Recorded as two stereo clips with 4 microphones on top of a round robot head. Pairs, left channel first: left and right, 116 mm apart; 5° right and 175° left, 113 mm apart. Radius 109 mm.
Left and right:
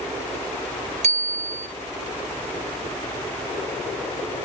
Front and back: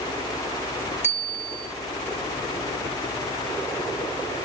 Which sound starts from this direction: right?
A bicycle bell, at 1.0 s.